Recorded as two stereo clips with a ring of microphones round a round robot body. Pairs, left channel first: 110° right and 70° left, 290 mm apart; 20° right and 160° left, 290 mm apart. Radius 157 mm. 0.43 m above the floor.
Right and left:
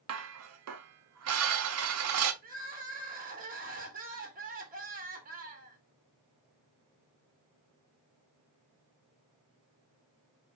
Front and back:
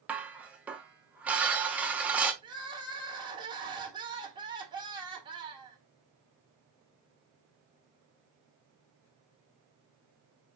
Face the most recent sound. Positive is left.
turn(degrees=95)